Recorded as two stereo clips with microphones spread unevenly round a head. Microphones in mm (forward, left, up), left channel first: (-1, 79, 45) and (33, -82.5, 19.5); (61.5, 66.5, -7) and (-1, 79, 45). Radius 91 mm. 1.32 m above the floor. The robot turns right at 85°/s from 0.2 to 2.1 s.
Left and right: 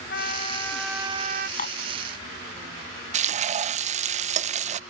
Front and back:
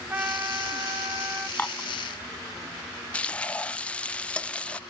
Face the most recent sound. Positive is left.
turn(degrees=-45)